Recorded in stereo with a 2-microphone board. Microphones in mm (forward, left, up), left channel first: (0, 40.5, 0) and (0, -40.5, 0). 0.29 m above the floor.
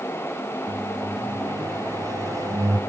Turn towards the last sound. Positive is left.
turn(degrees=-45)  # may be behind; listen again after turning